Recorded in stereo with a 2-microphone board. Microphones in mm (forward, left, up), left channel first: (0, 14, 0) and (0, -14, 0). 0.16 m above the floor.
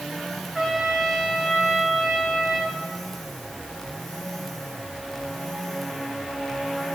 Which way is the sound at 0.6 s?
10° right (ahead or behind).